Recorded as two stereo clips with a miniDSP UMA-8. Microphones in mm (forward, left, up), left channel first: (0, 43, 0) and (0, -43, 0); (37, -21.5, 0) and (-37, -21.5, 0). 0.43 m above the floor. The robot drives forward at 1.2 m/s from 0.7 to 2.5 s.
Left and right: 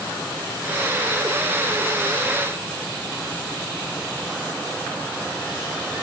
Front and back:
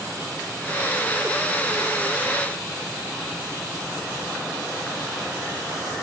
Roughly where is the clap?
No clap in this recording.